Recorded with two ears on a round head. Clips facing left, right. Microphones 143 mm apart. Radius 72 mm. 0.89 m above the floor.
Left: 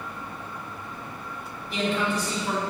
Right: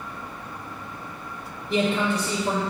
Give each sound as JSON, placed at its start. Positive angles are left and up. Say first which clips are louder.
{"t": 1.7, "sound": "a man speaking", "louder": "right 3 dB", "side_deg": -50, "distance_m": 1.7}